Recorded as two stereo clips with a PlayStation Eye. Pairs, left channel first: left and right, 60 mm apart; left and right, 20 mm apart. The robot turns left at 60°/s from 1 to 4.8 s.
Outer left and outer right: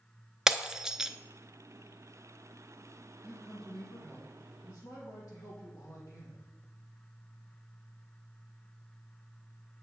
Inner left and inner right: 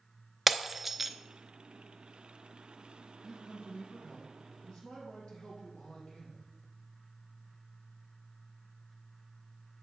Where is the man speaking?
155° right, 4 m; by 6.5 s 110° left, 4 m.